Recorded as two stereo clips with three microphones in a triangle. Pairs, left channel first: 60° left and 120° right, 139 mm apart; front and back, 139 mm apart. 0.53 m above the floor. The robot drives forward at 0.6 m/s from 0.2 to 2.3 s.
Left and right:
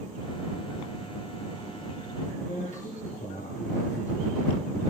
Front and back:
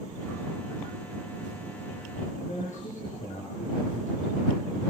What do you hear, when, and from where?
2.4 s a man speaking: 30° left, 9 m